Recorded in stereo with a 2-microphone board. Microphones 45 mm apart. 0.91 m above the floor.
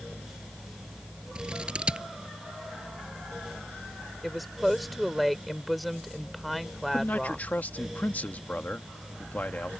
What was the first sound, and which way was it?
Scissors, 20° right (ahead or behind).